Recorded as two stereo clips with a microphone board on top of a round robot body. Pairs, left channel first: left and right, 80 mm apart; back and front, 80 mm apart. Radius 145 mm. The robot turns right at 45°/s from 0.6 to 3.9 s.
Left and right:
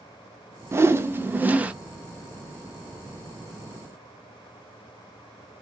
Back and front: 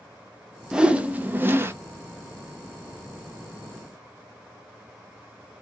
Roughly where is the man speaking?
No man speaking in this recording.